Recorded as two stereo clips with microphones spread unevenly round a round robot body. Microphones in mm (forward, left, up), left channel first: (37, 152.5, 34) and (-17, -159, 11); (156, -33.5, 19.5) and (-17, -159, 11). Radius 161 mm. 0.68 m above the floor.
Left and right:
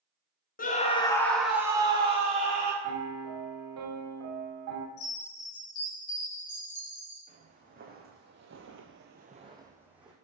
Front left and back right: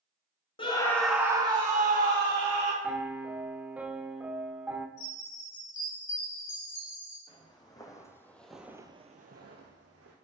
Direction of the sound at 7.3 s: 30° right.